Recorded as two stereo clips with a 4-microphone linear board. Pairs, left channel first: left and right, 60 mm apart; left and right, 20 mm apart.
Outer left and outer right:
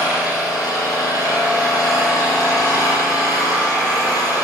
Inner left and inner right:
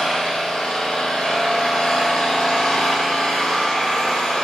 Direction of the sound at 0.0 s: 80° left.